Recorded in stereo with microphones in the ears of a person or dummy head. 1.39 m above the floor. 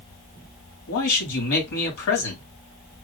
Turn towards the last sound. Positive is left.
turn(degrees=75)  # may be behind; listen again after turning